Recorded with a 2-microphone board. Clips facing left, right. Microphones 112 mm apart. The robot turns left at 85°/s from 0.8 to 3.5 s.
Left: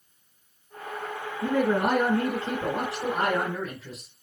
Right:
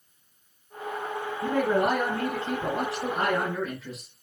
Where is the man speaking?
175° left, 2 m; by 4.1 s 5° right, 2 m.